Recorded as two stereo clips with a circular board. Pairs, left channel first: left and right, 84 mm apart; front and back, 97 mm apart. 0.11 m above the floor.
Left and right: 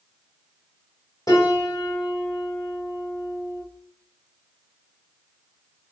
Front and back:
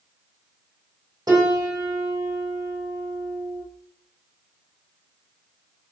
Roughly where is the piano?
Behind left.